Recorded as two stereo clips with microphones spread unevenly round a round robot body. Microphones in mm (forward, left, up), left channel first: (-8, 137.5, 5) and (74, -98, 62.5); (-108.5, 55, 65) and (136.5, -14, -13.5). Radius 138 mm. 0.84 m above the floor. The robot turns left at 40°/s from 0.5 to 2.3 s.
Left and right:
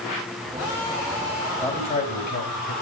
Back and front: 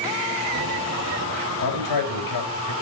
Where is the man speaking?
175° right, 4 m; by 2.7 s 160° left, 4 m.